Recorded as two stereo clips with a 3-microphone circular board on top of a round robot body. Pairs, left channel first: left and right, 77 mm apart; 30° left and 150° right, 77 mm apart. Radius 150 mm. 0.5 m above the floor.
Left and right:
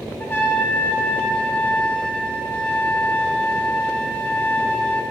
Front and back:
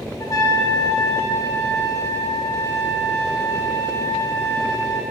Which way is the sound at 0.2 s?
35° left.